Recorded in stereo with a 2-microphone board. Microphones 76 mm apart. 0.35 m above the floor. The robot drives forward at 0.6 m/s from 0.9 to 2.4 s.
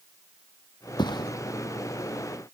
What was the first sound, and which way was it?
A thud, 80° left.